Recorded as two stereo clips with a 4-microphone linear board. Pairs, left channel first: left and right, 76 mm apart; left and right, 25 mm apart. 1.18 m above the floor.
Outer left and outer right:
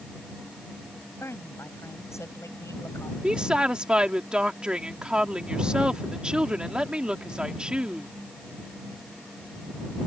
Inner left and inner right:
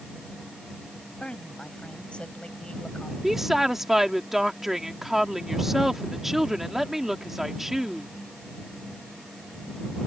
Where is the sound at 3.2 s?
15° right (ahead or behind).